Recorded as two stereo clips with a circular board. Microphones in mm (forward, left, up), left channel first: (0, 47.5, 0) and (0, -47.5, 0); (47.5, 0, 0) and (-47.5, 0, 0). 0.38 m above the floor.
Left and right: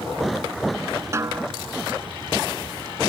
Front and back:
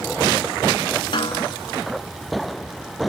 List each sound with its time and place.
1.1 s a snare drum: 30° right